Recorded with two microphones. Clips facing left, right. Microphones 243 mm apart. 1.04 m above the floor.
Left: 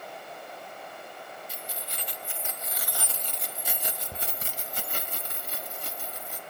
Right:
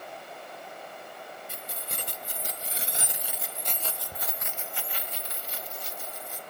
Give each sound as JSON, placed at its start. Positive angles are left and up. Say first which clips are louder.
{"t": 1.5, "sound": "keys jangling", "louder": "even", "side_deg": -55, "distance_m": 1.4}